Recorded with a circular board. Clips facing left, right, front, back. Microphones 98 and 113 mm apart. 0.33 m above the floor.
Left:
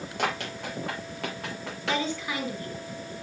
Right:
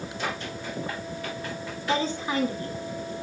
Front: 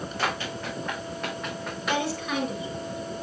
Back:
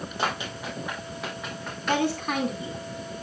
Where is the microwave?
No microwave in this recording.